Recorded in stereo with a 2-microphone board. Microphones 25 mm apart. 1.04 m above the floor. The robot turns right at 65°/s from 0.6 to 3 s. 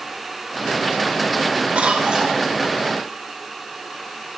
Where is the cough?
65° right, 4 m; by 2.4 s 25° right, 4 m.